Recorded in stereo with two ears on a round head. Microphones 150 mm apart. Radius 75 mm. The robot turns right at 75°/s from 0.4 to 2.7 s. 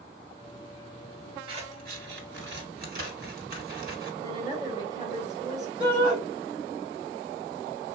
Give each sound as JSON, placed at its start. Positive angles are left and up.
{"t": 1.5, "sound": "scissors", "side_deg": -35, "distance_m": 1.3}
{"t": 4.2, "sound": "a woman speaking", "side_deg": -25, "distance_m": 1.8}
{"t": 5.8, "sound": "a shout", "side_deg": -35, "distance_m": 2.5}